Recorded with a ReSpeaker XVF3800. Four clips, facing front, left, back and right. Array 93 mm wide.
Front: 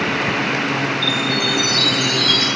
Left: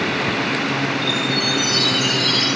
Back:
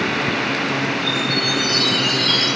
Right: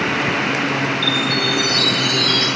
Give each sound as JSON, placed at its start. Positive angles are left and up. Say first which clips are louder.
{"t": 1.0, "sound": "a chime", "louder": "right 2 dB, front 1 dB", "azimuth_deg": 125, "distance_m": 8.0}